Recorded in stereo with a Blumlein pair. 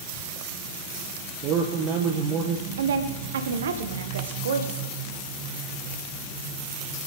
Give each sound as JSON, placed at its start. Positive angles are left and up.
{"t": 1.4, "sound": "a man speaking", "azimuth_deg": -35, "distance_m": 1.3}
{"t": 2.8, "sound": "a woman speaking", "azimuth_deg": -65, "distance_m": 1.4}